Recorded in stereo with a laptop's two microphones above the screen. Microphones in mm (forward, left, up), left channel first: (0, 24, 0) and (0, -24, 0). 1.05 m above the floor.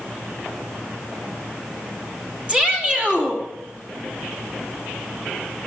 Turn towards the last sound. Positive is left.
turn(degrees=-25)  # may be behind; listen again after turning